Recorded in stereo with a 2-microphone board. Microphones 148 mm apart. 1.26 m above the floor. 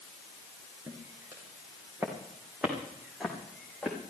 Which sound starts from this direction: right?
Footsteps, at 0.9 s.